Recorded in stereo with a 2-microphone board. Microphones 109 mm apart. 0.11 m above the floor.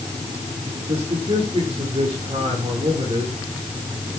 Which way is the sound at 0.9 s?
55° right (ahead or behind).